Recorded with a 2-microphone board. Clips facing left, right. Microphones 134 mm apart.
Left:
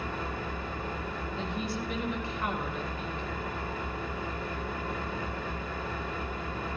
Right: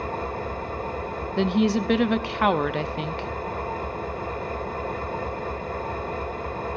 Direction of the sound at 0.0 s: 50° right (ahead or behind).